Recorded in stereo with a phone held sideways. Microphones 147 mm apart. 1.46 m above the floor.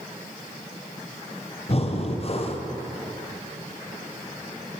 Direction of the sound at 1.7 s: 45° left (ahead or behind).